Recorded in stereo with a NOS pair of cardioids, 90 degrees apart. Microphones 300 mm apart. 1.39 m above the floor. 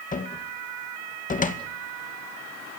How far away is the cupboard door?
About 2.0 m.